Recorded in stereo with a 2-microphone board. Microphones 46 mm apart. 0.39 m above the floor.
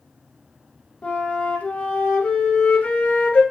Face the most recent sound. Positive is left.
turn(degrees=30)  # may be behind; listen again after turning